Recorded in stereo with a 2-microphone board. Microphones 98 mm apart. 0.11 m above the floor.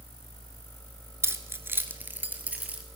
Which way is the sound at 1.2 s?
25° right (ahead or behind).